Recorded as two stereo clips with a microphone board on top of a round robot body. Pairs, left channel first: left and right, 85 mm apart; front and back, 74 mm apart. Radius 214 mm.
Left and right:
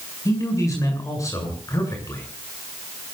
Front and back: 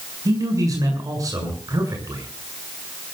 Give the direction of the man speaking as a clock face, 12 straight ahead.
7 o'clock.